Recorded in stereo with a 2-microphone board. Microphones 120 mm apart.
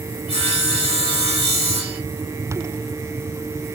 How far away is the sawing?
About 1.3 m.